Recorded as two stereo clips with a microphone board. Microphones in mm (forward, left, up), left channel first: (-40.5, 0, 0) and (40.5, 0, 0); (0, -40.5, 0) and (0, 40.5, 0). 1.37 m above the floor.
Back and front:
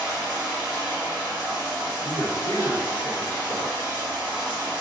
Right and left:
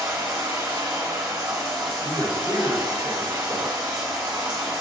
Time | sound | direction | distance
0.0 | running water | 70° left | 1.9 m
2.0 | a man speaking | 20° left | 1.3 m